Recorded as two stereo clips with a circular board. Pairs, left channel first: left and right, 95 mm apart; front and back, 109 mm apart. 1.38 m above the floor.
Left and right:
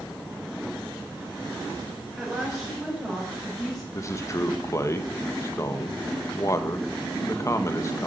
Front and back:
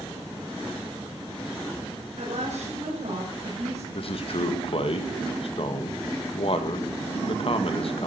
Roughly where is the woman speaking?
Behind.